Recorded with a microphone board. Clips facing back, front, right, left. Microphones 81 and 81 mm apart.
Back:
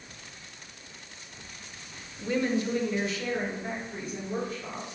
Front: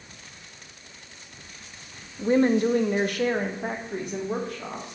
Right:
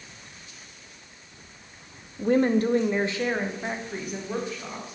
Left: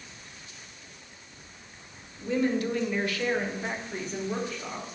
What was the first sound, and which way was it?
A woman speaking, 60° right.